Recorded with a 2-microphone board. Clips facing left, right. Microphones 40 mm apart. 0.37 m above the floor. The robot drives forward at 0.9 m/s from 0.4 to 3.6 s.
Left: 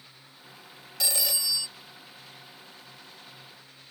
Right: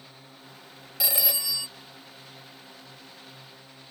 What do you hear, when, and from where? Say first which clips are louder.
0.0 s a drone: right 3 dB; 60° right (ahead or behind); by 3.9 s 65° right (ahead or behind)
1.0 s a phone ringing: even; 10° right (ahead or behind); by 1.7 s 20° right (ahead or behind)